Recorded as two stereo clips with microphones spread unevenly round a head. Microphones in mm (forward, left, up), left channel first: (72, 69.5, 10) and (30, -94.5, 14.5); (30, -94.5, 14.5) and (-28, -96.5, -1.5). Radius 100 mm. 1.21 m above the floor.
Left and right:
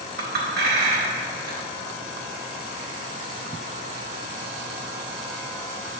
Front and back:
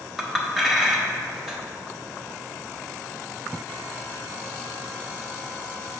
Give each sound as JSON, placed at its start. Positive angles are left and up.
{"t": 0.2, "sound": "a clink", "azimuth_deg": -85, "distance_m": 1.2}